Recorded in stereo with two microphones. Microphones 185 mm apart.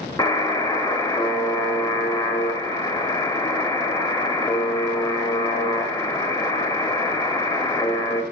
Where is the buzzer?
20° left (ahead or behind), 0.8 m.